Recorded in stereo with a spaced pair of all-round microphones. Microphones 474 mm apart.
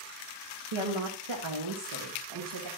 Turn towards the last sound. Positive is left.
turn(degrees=-80)